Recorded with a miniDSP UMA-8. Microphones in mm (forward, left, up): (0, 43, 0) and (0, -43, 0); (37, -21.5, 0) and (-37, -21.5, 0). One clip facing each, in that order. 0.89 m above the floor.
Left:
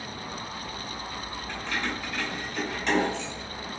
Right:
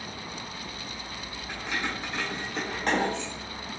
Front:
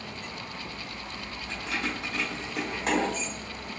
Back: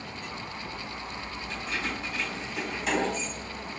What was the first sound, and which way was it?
Keys jangling, 5° right.